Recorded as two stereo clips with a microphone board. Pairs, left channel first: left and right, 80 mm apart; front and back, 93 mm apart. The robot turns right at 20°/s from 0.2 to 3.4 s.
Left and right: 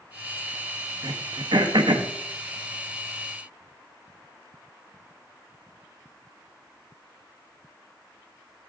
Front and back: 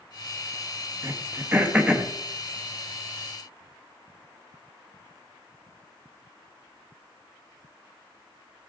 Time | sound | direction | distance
1.0 | throat clearing | 120° right | 1.3 m